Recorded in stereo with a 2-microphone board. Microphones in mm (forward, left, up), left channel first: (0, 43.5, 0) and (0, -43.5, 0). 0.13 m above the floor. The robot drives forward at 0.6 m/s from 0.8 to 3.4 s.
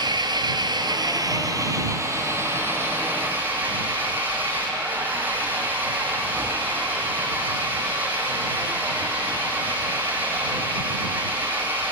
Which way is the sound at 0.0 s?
60° right (ahead or behind).